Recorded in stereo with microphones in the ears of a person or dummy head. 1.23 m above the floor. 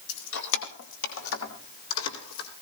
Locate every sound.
0.1 s keys jangling: 65° left (ahead or behind), 2 m; by 2.5 s 85° left, 4 m